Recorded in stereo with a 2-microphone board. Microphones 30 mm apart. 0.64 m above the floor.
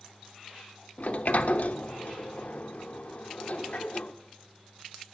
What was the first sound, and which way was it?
A sliding door, 55° left (ahead or behind).